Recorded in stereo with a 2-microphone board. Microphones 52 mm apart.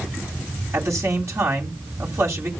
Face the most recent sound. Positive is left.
turn(degrees=-60)  # may be behind; listen again after turning